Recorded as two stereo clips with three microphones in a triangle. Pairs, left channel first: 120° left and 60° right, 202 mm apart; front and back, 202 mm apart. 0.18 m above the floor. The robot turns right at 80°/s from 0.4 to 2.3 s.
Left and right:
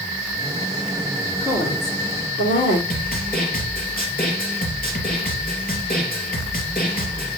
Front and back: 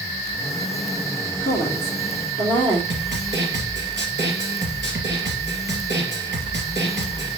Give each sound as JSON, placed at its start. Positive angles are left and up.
{"t": 1.4, "sound": "a woman speaking", "azimuth_deg": 45, "distance_m": 3.5}
{"t": 2.9, "sound": "a snare drum", "azimuth_deg": 160, "distance_m": 2.5}